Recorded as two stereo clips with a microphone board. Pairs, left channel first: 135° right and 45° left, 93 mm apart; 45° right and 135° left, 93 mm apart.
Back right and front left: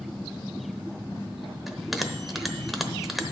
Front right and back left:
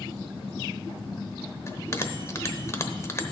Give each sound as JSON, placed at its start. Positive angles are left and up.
{"t": 1.7, "sound": "a bell", "azimuth_deg": -40, "distance_m": 0.9}